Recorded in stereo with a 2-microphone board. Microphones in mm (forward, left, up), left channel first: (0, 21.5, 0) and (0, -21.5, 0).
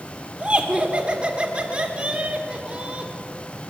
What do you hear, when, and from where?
0.4 s laughter: 20° right (ahead or behind), 1.3 m